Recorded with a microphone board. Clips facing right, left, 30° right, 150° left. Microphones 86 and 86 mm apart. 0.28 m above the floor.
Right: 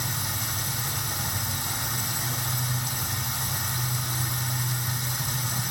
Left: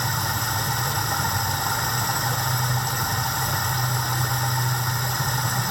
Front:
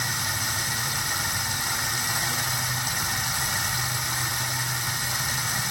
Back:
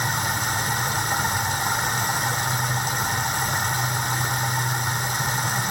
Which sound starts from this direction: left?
Running water, at 0.0 s.